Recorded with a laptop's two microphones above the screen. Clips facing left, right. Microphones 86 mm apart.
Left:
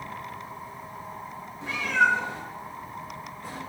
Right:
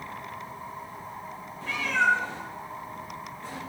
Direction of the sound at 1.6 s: 20° left (ahead or behind).